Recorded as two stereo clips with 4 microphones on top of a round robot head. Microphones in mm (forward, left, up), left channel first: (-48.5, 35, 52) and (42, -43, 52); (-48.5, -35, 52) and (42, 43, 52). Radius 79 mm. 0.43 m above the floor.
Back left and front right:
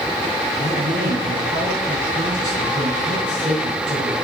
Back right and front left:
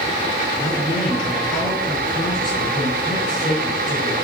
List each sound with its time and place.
0.6 s a man speaking: 80° right, 5 m